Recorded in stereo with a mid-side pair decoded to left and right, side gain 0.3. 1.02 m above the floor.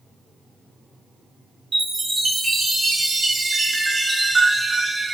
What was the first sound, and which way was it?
A chime, 45° right.